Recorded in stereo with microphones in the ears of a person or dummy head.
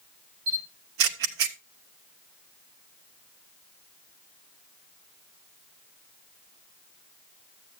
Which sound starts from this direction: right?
A camera shutter, at 0.5 s.